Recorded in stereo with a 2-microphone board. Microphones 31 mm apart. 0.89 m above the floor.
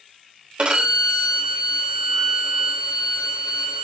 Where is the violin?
35° right (ahead or behind), 4.5 m.